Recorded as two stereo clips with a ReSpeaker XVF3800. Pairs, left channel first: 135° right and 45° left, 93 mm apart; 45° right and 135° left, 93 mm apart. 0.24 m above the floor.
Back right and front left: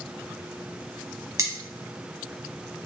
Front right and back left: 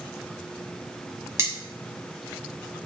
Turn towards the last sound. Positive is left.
turn(degrees=90)